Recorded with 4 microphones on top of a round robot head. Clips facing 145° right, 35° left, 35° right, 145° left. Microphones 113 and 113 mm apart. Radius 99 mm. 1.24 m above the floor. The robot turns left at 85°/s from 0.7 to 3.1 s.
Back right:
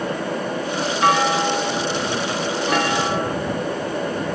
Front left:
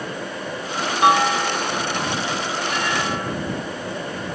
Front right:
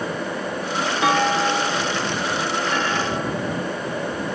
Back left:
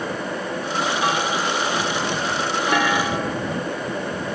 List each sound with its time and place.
1.0 s a clunk: 40° right; by 3.4 s 145° left